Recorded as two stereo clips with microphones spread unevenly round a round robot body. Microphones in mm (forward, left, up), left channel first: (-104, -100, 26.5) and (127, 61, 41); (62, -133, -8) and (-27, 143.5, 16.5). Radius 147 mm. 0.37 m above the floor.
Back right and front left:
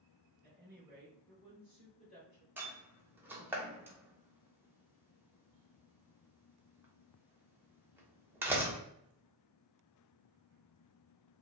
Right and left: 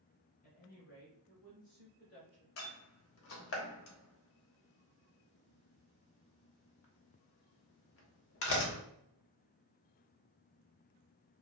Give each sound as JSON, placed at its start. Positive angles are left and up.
{"t": 0.4, "sound": "a woman speaking", "azimuth_deg": -30, "distance_m": 1.5}
{"t": 2.6, "sound": "a door slam", "azimuth_deg": -50, "distance_m": 0.9}